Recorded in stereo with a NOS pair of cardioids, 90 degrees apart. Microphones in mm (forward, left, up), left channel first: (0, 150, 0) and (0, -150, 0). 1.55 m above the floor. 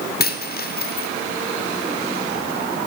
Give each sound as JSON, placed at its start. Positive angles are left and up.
{"t": 0.2, "sound": "a dropped coin", "azimuth_deg": 35, "distance_m": 2.5}